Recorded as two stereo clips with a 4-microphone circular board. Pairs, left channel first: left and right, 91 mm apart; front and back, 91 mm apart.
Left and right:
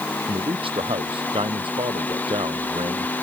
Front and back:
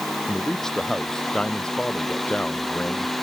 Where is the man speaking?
85° right; by 3.1 s 75° right.